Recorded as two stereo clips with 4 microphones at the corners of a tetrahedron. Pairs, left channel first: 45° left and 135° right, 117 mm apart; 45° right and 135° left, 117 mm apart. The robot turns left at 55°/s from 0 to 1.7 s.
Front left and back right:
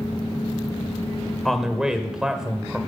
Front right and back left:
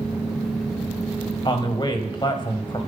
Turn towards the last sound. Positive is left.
turn(degrees=-55)